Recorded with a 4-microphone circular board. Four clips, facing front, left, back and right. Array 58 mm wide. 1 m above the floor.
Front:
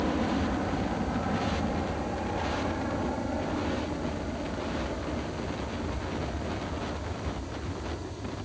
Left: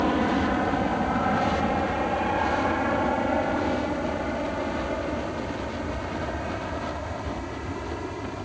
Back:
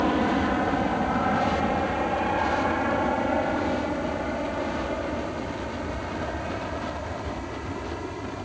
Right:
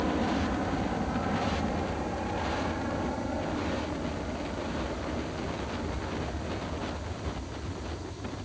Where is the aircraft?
140° left; by 8.5 s 130° left.